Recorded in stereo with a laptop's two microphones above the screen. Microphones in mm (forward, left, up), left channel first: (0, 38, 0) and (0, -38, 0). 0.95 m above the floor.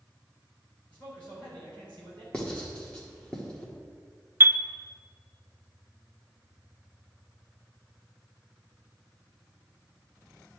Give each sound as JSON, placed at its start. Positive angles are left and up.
{"t": 0.9, "sound": "a man speaking", "side_deg": 20, "distance_m": 4.0}
{"t": 2.3, "sound": "writing", "side_deg": 10, "distance_m": 1.6}
{"t": 4.4, "sound": "a chime", "side_deg": -30, "distance_m": 0.5}